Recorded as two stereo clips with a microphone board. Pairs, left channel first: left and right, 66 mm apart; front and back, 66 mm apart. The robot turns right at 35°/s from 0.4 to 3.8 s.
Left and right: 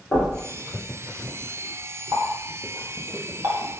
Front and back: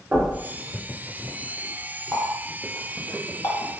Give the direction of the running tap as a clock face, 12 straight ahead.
3 o'clock.